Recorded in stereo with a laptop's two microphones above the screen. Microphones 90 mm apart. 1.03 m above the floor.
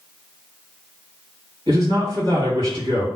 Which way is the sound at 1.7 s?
65° right (ahead or behind).